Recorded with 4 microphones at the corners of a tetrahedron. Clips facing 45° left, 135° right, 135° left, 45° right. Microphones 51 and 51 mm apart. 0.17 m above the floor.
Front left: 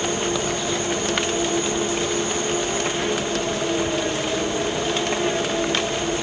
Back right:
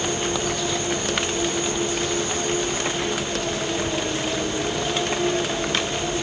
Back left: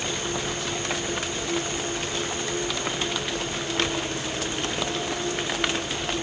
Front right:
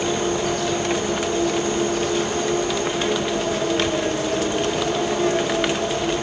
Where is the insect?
30° right, 1.6 m.